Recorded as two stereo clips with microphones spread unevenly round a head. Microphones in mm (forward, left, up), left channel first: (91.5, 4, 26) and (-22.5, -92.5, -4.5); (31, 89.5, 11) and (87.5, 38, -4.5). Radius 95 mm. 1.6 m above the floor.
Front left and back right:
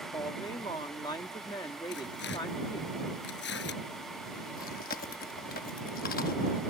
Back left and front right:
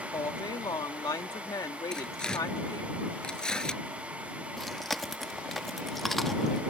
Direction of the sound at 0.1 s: 110° left.